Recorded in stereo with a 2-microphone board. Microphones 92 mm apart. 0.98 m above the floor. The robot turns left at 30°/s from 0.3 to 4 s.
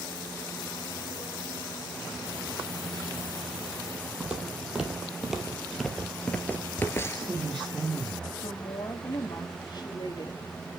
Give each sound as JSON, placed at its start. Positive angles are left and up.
{"t": 4.2, "sound": "footsteps", "side_deg": -15, "distance_m": 2.0}
{"t": 7.0, "sound": "a man speaking", "side_deg": 0, "distance_m": 2.5}
{"t": 8.4, "sound": "a woman speaking", "side_deg": 50, "distance_m": 1.8}